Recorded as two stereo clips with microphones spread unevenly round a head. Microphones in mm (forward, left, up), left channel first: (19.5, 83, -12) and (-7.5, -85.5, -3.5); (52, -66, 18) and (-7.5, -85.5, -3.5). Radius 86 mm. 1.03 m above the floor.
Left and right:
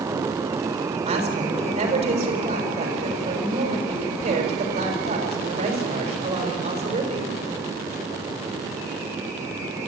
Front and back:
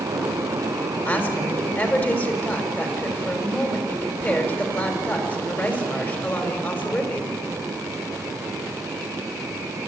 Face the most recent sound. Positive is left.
turn(degrees=-45)